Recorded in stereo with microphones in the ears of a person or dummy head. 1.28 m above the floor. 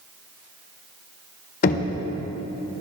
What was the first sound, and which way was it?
Knocking, 45° left (ahead or behind).